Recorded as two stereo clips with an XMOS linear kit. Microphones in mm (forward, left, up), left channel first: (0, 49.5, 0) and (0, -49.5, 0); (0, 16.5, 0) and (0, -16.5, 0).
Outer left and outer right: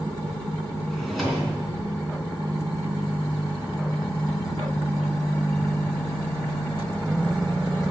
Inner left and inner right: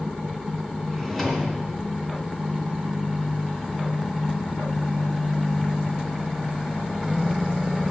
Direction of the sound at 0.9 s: Centre (ahead or behind).